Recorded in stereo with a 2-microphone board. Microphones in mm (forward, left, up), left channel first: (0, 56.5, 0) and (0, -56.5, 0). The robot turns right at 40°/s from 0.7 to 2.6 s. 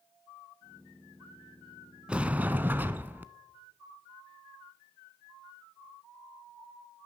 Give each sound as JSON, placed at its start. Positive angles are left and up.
{"t": 2.1, "sound": "a sliding door", "side_deg": -10, "distance_m": 0.6}